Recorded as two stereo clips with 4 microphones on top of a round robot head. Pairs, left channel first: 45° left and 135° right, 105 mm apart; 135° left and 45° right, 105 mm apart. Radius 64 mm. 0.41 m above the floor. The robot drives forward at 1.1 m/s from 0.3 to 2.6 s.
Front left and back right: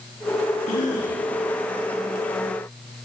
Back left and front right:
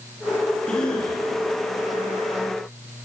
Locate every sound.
0.7 s a cough: 50° left, 9.5 m; by 1.2 s 55° left, 9 m